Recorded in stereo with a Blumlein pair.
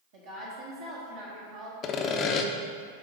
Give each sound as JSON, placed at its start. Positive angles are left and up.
{"t": 0.1, "sound": "a woman speaking", "azimuth_deg": -55, "distance_m": 1.3}
{"t": 1.8, "sound": "sawing", "azimuth_deg": 30, "distance_m": 0.6}